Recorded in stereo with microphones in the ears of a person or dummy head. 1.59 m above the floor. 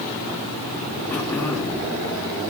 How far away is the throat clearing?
About 1.5 m.